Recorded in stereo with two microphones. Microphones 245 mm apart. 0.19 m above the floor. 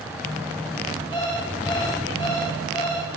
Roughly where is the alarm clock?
Centre.